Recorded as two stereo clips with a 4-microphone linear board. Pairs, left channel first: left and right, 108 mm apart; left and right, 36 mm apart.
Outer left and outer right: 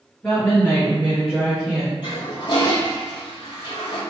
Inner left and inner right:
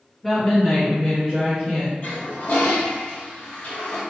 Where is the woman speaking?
10° left (ahead or behind), 1.7 m; by 1.9 s 5° right (ahead or behind), 0.7 m.